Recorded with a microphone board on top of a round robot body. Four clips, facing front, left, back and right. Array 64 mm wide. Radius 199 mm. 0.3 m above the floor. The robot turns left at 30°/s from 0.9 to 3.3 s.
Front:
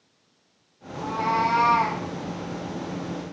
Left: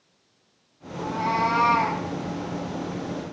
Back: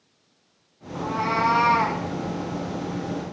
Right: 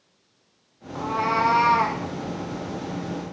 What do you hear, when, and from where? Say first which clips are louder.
0.9 s a cat meowing: right 2 dB, even; 105° right, 0.6 m; by 2.0 s 140° right, 0.6 m